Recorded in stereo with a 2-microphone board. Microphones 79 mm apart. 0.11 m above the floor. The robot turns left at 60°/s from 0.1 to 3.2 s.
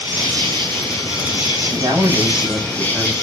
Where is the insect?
35° right, 2.5 m; by 3.2 s 140° left, 2.5 m.